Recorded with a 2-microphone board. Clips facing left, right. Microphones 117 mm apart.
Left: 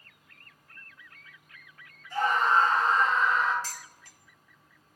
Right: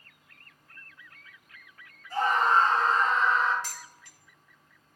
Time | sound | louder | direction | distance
2.1 | a scream | right 1 dB | 40° right (ahead or behind) | 5 m
3.6 | dishes clattering | even | 40° left (ahead or behind) | 1.6 m